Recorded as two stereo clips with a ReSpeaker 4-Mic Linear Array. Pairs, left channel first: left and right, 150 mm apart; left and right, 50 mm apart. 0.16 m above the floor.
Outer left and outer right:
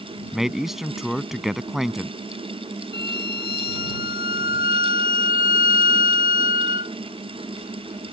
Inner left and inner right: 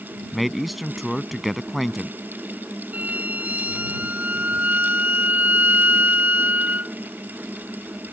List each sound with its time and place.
0.3 s a man speaking: centre (ahead or behind)
2.9 s a violin: 35° right (ahead or behind)